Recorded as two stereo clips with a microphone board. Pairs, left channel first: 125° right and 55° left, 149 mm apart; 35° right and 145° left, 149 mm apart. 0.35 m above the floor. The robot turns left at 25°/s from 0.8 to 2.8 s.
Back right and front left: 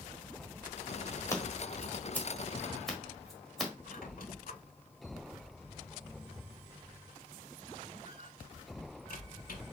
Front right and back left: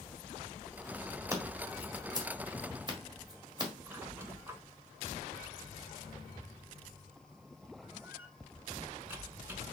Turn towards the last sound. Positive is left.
turn(degrees=-140)